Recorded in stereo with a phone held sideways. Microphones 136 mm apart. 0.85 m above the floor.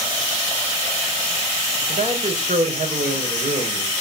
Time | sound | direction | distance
1.9 | a man speaking | 80° right | 4 m